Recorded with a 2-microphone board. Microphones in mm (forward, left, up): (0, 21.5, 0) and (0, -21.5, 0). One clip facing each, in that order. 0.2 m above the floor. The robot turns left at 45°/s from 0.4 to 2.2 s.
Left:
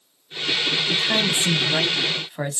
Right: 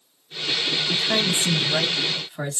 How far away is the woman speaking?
About 1.0 m.